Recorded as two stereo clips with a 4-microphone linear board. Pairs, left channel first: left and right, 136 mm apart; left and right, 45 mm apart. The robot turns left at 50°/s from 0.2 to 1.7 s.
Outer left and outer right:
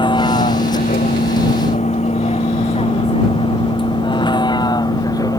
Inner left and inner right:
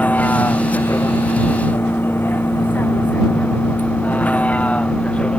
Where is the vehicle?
35° left (ahead or behind); by 5.4 s 25° left (ahead or behind).